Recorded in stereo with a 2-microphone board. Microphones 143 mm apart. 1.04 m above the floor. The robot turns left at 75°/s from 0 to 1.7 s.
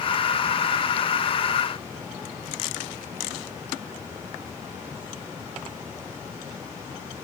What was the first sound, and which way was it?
Only background noise.